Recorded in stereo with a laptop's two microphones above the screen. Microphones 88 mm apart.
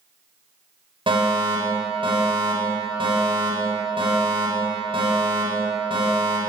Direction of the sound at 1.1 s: 70° right (ahead or behind).